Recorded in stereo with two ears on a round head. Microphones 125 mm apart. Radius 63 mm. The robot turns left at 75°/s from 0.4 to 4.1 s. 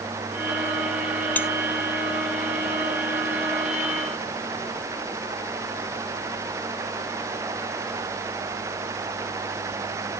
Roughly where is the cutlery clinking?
Centre.